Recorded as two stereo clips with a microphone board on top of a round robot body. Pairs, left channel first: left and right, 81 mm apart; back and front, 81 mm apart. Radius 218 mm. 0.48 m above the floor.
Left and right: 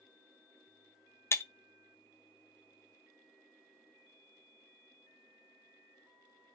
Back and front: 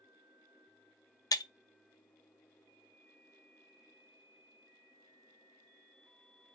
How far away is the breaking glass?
About 0.5 m.